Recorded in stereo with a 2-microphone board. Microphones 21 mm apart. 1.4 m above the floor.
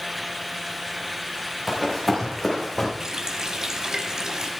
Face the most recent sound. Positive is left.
turn(degrees=-30)  # may be behind; listen again after turning